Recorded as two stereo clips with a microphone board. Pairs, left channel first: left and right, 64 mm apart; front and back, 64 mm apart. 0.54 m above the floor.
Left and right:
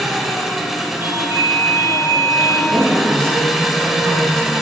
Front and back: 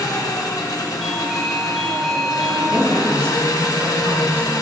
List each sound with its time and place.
0.0 s an engine running: 5° right, 0.8 m
1.0 s a doorbell: 85° right, 1.5 m
2.7 s a man speaking: 135° right, 2 m